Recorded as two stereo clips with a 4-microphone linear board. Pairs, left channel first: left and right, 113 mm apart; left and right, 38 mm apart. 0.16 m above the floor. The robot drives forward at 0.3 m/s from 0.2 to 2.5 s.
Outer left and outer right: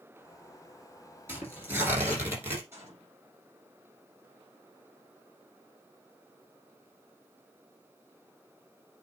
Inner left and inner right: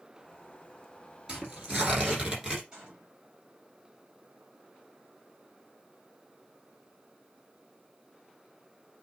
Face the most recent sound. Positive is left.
turn(degrees=-30)  # may be behind; listen again after turning